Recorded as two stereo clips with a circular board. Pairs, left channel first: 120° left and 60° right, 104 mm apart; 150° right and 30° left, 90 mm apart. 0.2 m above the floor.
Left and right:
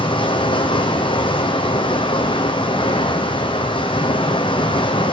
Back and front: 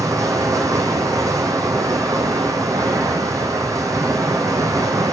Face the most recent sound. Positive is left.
turn(degrees=85)